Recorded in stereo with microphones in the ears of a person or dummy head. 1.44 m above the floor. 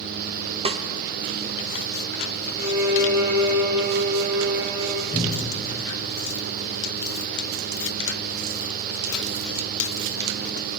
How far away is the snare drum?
About 0.5 m.